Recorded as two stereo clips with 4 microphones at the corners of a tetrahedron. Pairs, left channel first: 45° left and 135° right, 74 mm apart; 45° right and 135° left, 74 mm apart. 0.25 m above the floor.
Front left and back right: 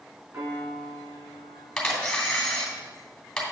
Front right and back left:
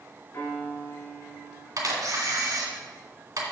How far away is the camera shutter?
About 2.5 m.